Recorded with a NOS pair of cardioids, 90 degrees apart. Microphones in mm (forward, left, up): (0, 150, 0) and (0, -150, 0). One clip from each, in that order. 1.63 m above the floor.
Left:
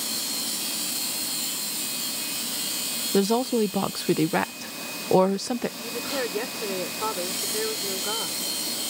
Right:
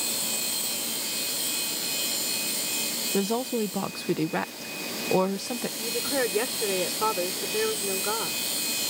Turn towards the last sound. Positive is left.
turn(degrees=-20)